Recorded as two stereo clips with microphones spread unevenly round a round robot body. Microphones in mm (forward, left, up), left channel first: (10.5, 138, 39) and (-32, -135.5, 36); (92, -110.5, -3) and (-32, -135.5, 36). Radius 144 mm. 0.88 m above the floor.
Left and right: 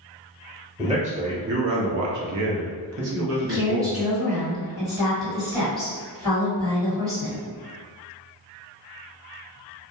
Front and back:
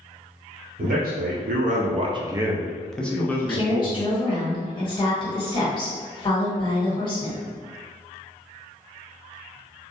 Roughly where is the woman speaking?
Ahead right.